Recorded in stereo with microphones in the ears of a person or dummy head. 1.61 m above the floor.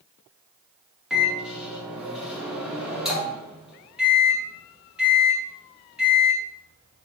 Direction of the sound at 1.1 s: 5° right (ahead or behind).